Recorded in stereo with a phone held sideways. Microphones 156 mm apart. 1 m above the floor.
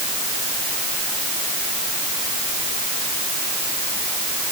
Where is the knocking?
No knocking in this recording.